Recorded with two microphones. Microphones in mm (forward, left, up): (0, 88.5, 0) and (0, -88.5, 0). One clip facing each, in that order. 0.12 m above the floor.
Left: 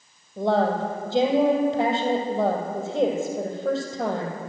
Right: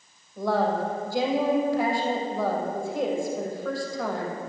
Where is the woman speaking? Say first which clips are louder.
Left 3 dB; 25° left (ahead or behind), 3 m.